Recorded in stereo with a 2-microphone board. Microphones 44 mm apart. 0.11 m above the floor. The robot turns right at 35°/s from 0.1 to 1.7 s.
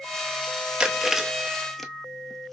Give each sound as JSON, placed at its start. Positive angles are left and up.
{"t": 0.8, "sound": "chewing", "side_deg": -25, "distance_m": 0.7}